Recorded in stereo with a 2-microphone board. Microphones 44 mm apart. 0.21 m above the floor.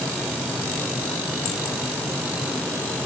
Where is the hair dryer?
No hair dryer in this recording.